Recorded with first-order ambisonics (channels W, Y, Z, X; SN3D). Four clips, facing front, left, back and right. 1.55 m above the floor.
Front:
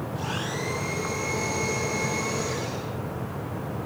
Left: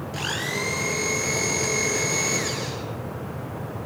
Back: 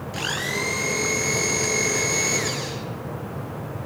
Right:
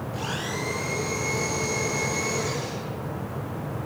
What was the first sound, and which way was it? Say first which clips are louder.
A blender: left 4 dB, back 7 dB; 145° left.